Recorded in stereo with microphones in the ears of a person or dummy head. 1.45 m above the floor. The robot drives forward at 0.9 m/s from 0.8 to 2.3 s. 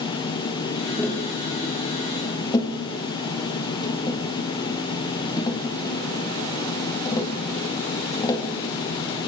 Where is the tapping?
15° left (ahead or behind), 2.5 m; by 8.5 s 30° left (ahead or behind), 1.6 m.